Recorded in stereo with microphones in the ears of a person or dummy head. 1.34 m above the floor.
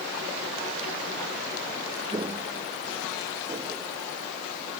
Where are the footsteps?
20° right (ahead or behind).